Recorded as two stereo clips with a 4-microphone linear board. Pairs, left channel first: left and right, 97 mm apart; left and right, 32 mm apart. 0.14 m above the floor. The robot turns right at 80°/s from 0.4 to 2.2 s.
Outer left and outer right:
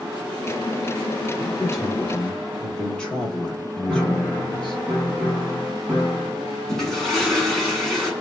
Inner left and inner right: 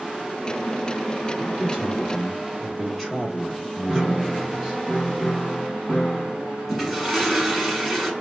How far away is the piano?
About 1.4 m.